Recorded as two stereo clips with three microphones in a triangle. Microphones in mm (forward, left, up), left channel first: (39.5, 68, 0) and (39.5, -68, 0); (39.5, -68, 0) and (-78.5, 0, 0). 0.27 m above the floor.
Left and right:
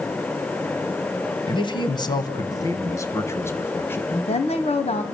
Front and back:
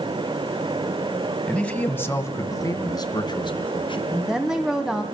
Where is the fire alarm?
No fire alarm in this recording.